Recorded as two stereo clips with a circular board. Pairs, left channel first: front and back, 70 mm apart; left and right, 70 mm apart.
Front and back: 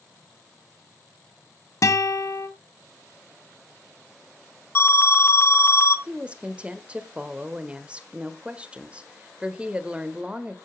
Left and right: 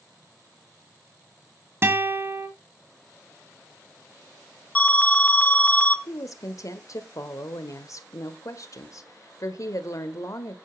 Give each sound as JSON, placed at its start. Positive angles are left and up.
{"t": 1.8, "sound": "a guitar", "azimuth_deg": -35, "distance_m": 1.6}
{"t": 4.8, "sound": "an alarm", "azimuth_deg": 35, "distance_m": 0.8}
{"t": 6.1, "sound": "a woman speaking", "azimuth_deg": 110, "distance_m": 1.3}